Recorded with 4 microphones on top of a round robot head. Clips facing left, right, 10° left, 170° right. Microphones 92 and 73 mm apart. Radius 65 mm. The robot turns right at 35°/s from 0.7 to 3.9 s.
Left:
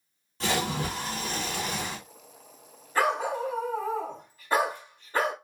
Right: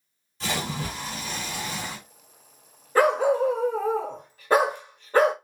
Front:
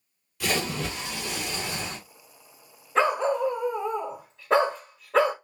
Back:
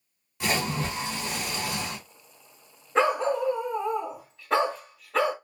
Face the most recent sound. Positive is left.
turn(degrees=-60)